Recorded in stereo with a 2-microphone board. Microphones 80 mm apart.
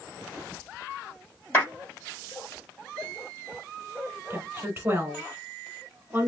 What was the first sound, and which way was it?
A clap, 25° left (ahead or behind).